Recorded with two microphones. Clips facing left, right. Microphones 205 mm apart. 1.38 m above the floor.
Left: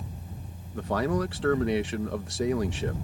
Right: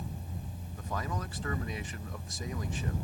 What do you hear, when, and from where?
0.7 s a man speaking: 75° left (ahead or behind)